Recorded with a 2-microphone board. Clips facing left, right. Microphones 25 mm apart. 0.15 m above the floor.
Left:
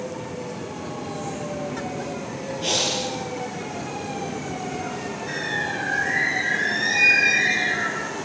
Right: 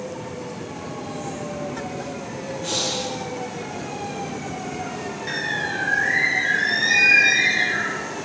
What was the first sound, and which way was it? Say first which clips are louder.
Breathing: left 2 dB; 60° left (ahead or behind).